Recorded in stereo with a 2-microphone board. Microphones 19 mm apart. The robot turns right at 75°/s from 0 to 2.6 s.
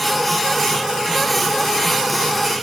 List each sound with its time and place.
Only background noise.